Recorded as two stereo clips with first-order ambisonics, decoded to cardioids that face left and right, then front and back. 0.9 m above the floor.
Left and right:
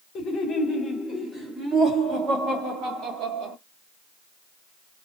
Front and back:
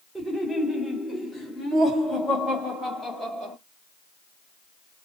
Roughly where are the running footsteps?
No running footsteps in this recording.